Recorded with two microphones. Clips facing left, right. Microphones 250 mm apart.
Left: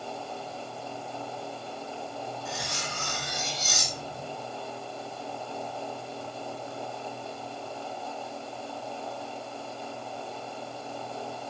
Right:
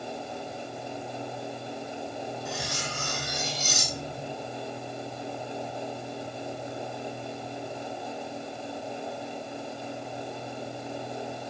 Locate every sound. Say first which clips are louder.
2.5 s cutlery clinking: right 2 dB; centre (ahead or behind), 2.5 m